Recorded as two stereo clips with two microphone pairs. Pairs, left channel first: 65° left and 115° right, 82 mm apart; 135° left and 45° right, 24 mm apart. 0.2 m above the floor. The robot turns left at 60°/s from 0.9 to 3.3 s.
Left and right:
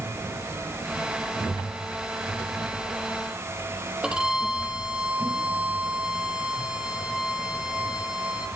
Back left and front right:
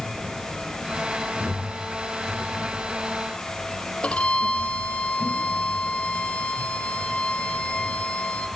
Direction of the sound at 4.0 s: 165° left.